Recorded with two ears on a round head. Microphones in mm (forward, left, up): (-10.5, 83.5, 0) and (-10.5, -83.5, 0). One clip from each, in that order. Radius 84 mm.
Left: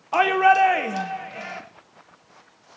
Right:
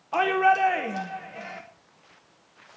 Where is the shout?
15° left (ahead or behind), 0.7 m.